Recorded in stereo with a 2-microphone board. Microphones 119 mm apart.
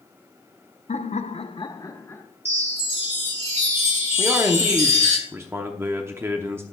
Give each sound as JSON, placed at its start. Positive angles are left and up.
{"t": 0.9, "sound": "laughter", "side_deg": 70, "distance_m": 0.8}
{"t": 2.5, "sound": "a chime", "side_deg": -70, "distance_m": 1.7}
{"t": 4.2, "sound": "a man speaking", "side_deg": -20, "distance_m": 0.7}